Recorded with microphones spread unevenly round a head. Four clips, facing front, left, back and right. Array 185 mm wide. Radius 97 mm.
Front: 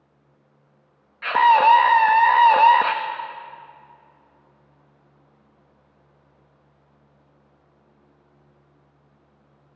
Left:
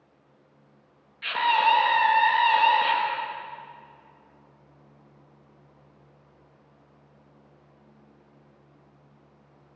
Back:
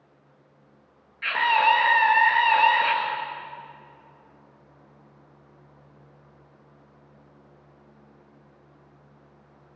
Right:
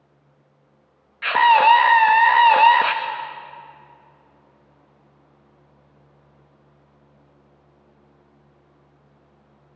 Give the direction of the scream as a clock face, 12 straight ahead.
1 o'clock.